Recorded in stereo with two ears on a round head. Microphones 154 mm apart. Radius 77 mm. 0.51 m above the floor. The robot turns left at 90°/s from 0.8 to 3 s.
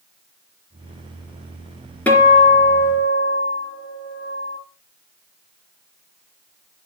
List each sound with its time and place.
2.1 s a guitar: 170° left, 3 m; by 4.6 s 85° left, 3 m